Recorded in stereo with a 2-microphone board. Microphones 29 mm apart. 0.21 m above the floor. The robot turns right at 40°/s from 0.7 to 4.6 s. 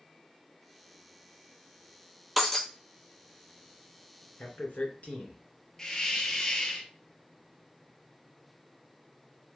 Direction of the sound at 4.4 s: 55° left (ahead or behind).